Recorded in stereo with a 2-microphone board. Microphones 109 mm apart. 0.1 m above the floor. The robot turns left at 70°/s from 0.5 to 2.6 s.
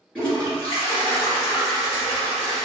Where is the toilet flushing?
10° left (ahead or behind), 1.6 m; by 2.6 s 5° left (ahead or behind), 1.6 m.